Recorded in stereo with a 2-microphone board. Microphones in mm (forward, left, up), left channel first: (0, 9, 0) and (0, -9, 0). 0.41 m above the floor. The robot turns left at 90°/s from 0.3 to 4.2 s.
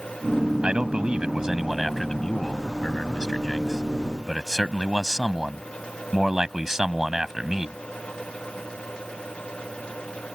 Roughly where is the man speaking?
Right.